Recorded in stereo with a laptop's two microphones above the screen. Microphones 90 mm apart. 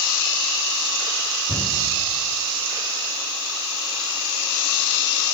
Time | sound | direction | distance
1.5 | a cupboard door | 20° left (ahead or behind) | 7 m